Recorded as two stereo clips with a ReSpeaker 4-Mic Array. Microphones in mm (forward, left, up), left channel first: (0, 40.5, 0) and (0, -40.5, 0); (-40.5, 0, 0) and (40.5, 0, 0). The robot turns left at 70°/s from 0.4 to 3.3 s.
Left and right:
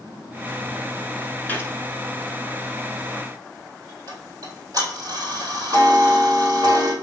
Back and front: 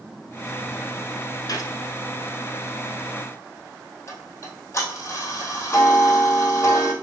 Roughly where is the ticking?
Behind right.